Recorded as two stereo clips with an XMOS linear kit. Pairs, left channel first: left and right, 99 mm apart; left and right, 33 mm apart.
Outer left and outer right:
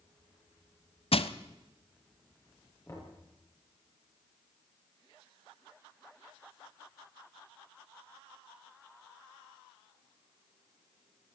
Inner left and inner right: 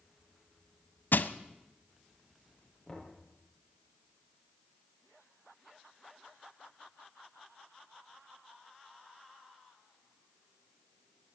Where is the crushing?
70° left (ahead or behind), 0.9 m.